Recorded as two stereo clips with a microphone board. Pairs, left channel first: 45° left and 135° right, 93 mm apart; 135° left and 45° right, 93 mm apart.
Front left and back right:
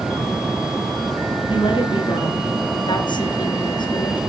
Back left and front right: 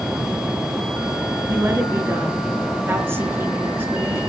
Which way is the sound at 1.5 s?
20° left.